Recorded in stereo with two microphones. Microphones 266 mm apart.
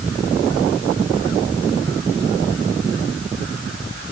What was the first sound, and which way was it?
Only background noise.